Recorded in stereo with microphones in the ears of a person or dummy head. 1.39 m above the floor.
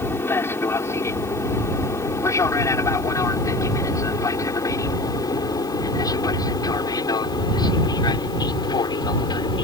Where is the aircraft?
10° left (ahead or behind); by 9.7 s 20° left (ahead or behind).